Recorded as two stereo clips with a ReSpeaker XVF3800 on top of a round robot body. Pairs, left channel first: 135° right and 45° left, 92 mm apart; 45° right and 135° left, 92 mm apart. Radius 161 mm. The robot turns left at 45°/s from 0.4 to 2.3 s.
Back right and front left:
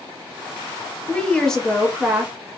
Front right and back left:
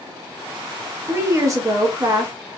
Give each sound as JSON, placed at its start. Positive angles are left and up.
{"t": 1.1, "sound": "a woman speaking", "azimuth_deg": 165, "distance_m": 1.1}